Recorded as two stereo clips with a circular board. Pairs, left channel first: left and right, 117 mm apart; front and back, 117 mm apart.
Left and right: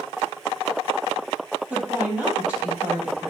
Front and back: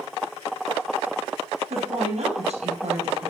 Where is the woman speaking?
170° right, 4.5 m.